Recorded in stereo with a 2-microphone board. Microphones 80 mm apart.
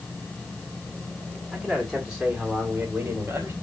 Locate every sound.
1.5 s a man speaking: centre (ahead or behind), 2.0 m; by 3.5 s 30° right (ahead or behind), 1.8 m